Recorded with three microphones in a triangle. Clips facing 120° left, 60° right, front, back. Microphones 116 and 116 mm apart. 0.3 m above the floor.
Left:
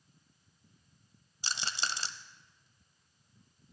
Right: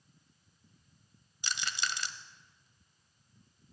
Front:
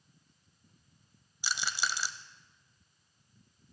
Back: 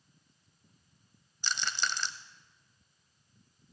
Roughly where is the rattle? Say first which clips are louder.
Even, even; left.